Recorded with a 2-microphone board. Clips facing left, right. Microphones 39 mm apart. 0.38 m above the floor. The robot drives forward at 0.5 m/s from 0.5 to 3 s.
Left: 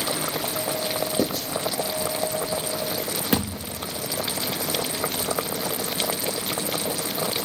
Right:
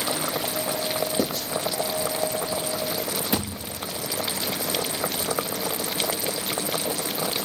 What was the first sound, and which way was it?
Writing, 5° left (ahead or behind).